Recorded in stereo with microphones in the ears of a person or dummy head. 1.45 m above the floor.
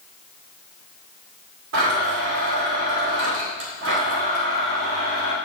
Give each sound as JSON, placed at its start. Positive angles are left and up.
{"t": 1.7, "sound": "a blender", "side_deg": -65, "distance_m": 2.5}